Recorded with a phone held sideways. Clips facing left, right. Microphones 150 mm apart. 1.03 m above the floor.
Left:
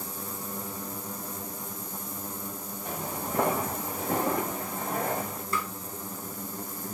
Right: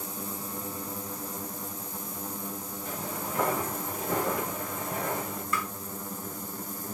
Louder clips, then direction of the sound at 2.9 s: Left 2 dB; 60° left (ahead or behind).